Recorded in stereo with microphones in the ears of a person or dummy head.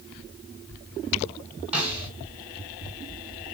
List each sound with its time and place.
1.7 s a snare drum: 10° right (ahead or behind), 5 m